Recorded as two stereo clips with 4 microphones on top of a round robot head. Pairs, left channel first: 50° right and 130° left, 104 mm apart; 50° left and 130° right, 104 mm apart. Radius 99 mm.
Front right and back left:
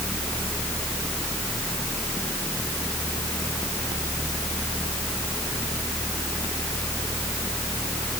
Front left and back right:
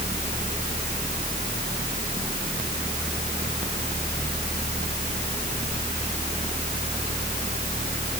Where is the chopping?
I don't hear chopping.